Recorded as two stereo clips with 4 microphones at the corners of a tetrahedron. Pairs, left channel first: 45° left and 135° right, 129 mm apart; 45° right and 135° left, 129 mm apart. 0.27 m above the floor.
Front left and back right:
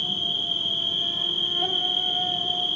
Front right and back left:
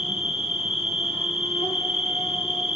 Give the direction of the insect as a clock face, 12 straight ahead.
1 o'clock.